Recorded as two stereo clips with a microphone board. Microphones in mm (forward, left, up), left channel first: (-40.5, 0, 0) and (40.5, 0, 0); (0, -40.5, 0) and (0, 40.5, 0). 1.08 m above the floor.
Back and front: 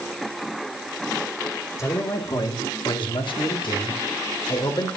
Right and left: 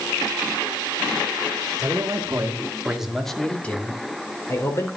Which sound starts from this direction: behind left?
A man speaking, at 1.8 s.